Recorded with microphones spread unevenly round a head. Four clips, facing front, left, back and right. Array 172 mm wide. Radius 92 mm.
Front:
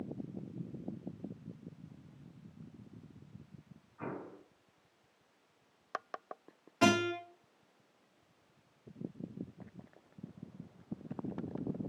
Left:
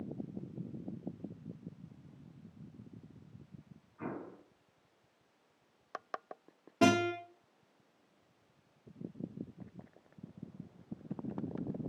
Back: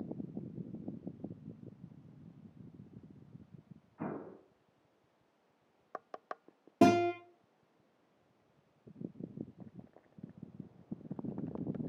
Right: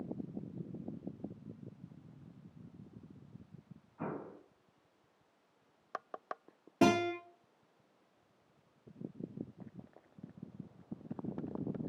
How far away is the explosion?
About 2.5 m.